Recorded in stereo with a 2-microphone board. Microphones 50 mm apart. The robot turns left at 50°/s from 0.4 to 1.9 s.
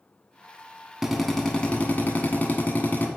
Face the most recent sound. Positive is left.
turn(degrees=145)